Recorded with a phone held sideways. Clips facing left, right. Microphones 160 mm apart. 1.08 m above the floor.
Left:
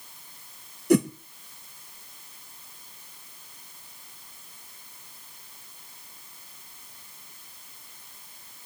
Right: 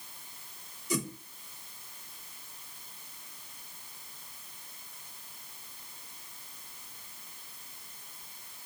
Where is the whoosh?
65° left (ahead or behind), 1.2 m.